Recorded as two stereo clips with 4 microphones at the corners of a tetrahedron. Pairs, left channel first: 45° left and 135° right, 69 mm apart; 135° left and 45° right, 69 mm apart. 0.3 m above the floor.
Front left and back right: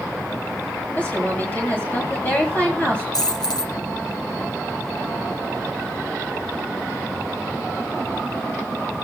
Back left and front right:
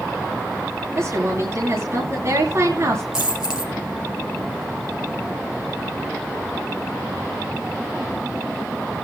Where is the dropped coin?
35° left, 2.5 m.